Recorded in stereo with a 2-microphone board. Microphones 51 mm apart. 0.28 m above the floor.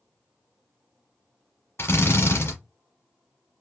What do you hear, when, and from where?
1.8 s a drill: 55° left (ahead or behind), 1.4 m